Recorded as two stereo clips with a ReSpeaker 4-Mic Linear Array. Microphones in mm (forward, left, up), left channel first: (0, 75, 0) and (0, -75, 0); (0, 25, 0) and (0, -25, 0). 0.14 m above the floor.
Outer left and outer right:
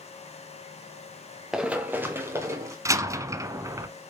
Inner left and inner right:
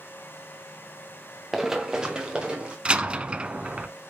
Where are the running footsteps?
5° right (ahead or behind), 1.3 m; by 2.8 s 20° right (ahead or behind), 3 m.